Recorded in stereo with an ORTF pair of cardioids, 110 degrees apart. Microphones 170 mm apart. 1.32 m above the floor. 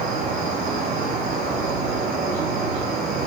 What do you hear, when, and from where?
0.0 s an insect: 65° right, 4.5 m